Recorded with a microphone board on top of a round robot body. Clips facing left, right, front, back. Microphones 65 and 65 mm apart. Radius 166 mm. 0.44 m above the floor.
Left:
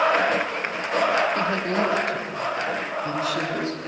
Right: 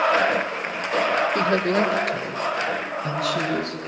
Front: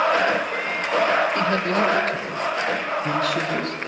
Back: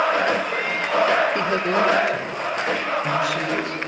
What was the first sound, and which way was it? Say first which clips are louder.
A woman speaking: right 3 dB, even; 110° right.